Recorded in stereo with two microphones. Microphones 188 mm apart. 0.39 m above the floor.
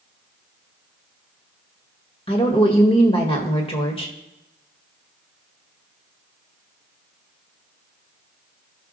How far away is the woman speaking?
About 1.5 m.